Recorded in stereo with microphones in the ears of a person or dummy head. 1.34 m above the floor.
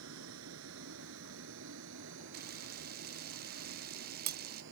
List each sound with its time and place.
0.0 s a vehicle: 80° right; by 4.7 s 65° right (ahead or behind)
2.3 s a camera shutter: 50° right (ahead or behind)